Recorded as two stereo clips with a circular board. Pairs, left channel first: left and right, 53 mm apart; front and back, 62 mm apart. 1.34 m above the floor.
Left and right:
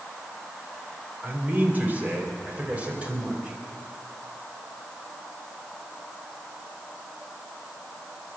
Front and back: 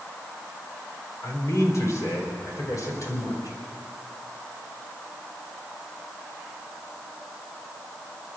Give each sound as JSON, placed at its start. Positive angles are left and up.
{"t": 1.2, "sound": "a man speaking", "azimuth_deg": -35, "distance_m": 3.5}